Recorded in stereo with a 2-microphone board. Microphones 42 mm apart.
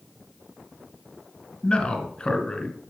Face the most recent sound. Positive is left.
turn(degrees=20)  # may be behind; listen again after turning